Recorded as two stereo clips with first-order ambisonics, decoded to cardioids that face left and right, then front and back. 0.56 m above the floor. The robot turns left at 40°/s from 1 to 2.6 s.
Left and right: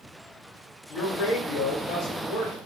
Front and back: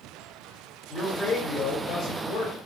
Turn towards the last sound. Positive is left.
turn(degrees=15)